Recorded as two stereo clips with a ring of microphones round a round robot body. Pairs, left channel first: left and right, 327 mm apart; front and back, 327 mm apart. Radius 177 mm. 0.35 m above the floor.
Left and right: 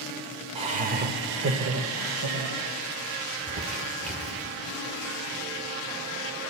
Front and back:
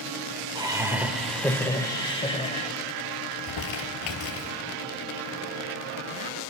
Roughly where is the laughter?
Behind right.